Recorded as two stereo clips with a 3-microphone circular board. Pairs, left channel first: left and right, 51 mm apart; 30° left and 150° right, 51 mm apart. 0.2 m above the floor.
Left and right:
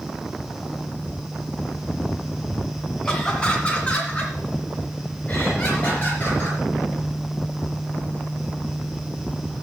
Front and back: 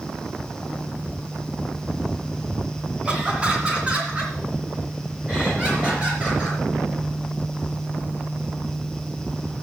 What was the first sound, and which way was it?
Laughter, 160° left.